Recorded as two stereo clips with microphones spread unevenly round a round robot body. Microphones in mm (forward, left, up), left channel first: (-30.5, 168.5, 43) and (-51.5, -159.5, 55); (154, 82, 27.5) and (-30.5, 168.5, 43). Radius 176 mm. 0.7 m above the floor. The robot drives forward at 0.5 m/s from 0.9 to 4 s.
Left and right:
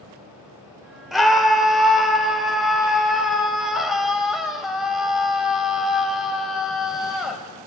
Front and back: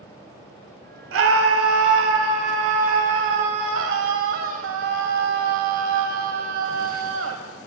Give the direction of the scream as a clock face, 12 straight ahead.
6 o'clock.